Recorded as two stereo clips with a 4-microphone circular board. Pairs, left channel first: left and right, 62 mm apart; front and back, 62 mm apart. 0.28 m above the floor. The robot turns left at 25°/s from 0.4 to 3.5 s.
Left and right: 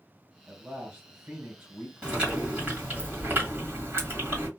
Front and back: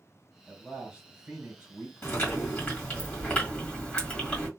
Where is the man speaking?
125° right, 1.7 m; by 3.0 s 175° left, 1.7 m.